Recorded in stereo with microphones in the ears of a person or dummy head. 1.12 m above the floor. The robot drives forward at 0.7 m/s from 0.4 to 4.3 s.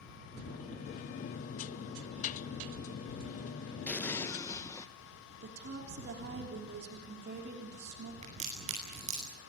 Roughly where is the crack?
Right.